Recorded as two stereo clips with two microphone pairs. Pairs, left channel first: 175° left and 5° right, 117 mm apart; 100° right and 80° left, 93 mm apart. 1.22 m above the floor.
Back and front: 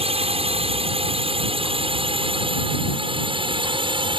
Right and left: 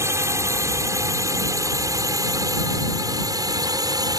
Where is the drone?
25° left; by 4.2 s 35° left.